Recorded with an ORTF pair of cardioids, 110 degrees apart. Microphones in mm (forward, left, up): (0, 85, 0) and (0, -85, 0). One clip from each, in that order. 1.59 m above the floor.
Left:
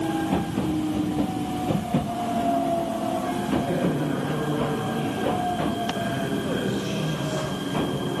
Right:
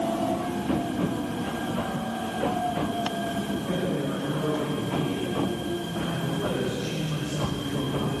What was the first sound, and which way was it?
A man speaking, 35° left.